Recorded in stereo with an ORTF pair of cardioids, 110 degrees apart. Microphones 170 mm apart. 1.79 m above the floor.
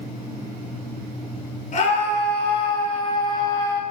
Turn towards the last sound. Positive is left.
turn(degrees=20)